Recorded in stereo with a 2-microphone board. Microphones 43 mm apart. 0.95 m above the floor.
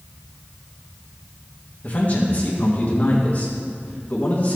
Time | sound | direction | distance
1.8 | a man speaking | 40° left (ahead or behind) | 1.8 m